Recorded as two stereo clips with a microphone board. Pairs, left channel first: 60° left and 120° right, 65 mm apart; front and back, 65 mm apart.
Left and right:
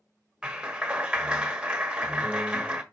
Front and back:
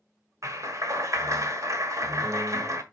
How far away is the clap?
About 1.3 m.